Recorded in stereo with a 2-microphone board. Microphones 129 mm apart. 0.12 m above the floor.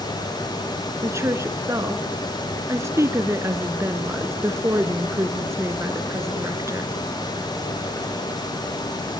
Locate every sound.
1.0 s a woman speaking: 20° right (ahead or behind), 1.8 m